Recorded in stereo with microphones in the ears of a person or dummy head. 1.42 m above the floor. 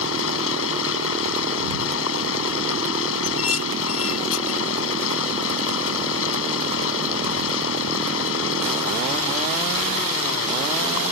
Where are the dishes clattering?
70° left (ahead or behind).